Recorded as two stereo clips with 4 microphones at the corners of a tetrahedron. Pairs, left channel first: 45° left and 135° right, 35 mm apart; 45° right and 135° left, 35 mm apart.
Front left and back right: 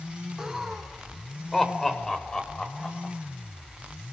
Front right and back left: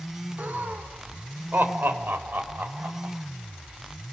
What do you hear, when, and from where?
0.4 s laughter: 155° left, 2.5 m; by 3.1 s 110° left, 4.5 m